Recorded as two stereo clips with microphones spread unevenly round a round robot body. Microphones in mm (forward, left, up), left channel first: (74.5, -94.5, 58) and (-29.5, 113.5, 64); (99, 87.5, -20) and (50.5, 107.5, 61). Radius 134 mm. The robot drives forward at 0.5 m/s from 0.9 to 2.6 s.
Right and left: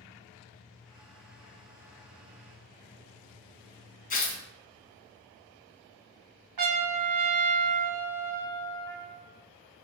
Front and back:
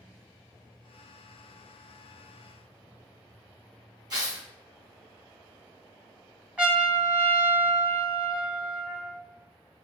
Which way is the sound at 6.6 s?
125° left.